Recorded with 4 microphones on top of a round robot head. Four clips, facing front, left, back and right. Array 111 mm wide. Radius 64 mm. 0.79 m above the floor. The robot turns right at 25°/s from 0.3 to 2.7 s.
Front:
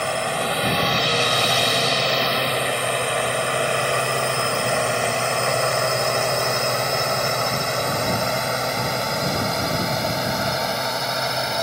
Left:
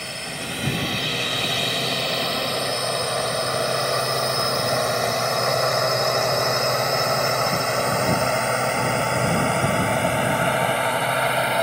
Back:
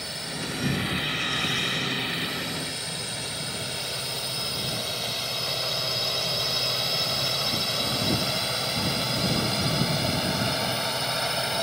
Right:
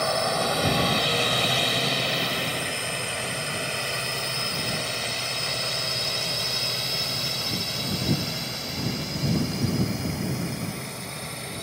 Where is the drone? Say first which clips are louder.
Right 9 dB, front 13 dB; 40° right; by 11.6 s 70° left.